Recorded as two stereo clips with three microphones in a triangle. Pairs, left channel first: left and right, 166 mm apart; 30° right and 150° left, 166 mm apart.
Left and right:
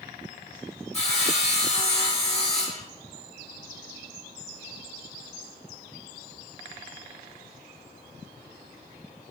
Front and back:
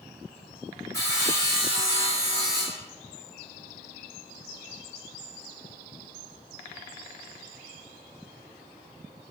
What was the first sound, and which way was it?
Sawing, 40° left.